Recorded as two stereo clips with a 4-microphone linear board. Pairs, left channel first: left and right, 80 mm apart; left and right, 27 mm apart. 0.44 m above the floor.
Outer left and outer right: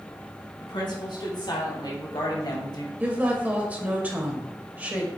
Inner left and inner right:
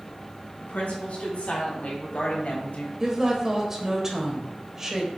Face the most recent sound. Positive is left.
turn(degrees=-20)  # may be behind; listen again after turning